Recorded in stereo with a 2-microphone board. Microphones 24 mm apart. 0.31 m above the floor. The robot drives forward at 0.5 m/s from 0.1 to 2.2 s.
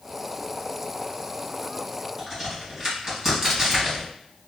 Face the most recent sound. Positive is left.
turn(degrees=-5)  # may be behind; listen again after turning